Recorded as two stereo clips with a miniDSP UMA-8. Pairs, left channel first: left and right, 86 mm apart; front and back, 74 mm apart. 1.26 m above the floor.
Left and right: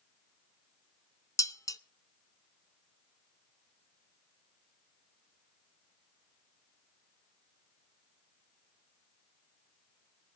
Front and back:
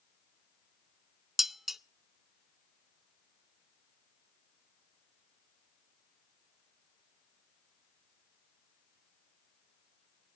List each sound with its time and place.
1.4 s dishes clattering: 95° left, 0.5 m